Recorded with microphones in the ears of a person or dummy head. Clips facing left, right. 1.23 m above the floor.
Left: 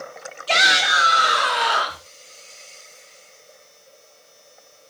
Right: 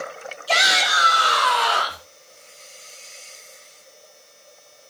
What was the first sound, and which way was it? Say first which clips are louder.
A shout: even; 35° left (ahead or behind).